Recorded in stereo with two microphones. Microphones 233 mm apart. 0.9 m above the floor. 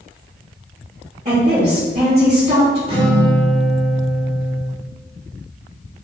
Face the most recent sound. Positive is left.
turn(degrees=-20)  # may be behind; listen again after turning